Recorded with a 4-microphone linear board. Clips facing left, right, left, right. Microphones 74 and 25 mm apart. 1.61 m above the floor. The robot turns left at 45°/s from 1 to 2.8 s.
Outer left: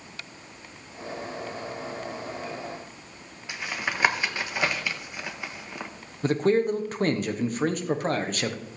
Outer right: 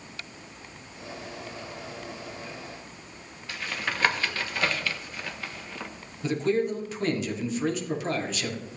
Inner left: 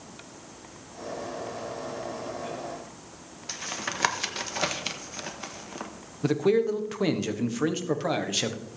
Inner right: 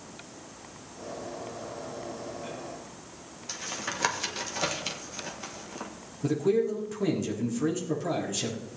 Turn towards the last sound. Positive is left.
turn(degrees=50)  # may be behind; listen again after turning